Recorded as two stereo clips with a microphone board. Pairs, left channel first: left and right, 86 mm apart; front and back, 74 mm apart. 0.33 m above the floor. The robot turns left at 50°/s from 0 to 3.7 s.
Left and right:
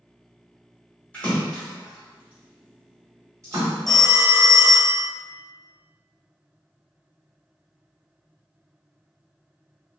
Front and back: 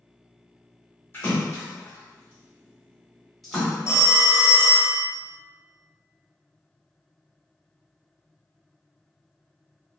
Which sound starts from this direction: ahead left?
A splash, at 1.1 s.